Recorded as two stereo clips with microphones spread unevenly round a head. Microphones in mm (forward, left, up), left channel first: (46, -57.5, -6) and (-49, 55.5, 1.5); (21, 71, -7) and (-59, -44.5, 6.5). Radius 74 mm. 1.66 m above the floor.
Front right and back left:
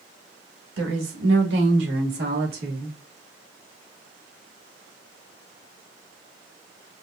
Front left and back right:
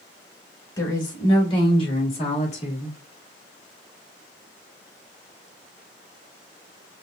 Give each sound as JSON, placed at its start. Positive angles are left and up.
{"t": 0.8, "sound": "a woman speaking", "azimuth_deg": 120, "distance_m": 3.0}